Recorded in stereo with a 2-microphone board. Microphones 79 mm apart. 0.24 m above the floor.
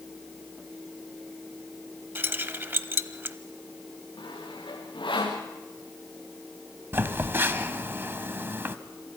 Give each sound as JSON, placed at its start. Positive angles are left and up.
{"t": 2.1, "sound": "keys jangling", "side_deg": -25, "distance_m": 0.8}
{"t": 4.2, "sound": "sawing", "side_deg": 85, "distance_m": 4.5}
{"t": 6.9, "sound": "a phone buzzing", "side_deg": -30, "distance_m": 1.0}